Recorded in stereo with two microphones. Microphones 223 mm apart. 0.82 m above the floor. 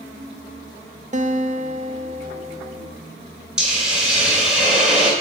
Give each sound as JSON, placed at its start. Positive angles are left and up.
{"t": 1.1, "sound": "a guitar", "side_deg": -35, "distance_m": 0.6}
{"t": 3.6, "sound": "a hiss", "side_deg": -5, "distance_m": 3.0}